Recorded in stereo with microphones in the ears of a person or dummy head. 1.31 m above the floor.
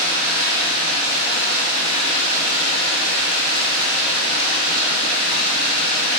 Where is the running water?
75° right (ahead or behind), 3 m.